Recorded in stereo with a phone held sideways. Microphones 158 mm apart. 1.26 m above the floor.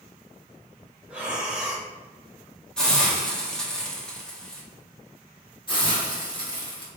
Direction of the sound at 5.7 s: 30° left (ahead or behind).